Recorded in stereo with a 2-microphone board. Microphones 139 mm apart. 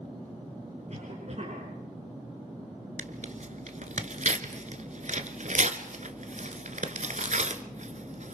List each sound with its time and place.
0.9 s a cough: 55° right (ahead or behind), 6 m
3.0 s tearing paper: 60° right (ahead or behind), 1.4 m